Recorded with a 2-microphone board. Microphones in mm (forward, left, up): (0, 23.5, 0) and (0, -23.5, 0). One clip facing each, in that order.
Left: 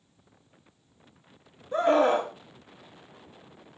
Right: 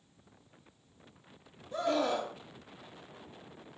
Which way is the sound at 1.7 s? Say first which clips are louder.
Left 9 dB; 40° left (ahead or behind).